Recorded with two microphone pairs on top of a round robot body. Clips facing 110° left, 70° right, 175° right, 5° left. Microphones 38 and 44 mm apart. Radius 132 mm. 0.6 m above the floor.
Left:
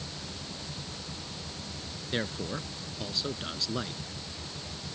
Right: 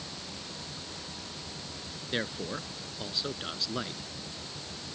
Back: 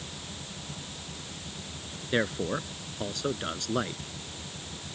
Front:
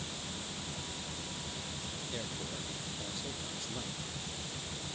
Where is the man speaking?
155° right.